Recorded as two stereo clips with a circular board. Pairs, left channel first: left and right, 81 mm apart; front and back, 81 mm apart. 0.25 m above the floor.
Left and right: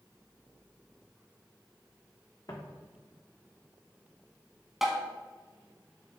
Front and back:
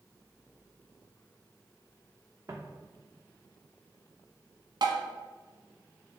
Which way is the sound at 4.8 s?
175° right.